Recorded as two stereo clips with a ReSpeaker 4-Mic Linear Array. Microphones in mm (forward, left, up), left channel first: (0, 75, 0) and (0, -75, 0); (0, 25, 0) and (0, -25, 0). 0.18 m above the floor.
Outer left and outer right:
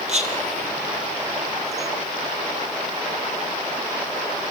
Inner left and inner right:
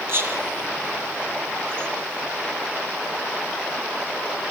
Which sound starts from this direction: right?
Whispering, at 0.1 s.